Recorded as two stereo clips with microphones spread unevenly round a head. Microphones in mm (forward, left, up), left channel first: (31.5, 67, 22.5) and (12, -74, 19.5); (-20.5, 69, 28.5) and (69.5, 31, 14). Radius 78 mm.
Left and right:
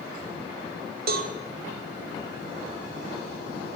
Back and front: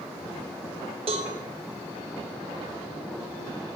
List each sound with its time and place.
1.1 s a cowbell: 75° right, 0.7 m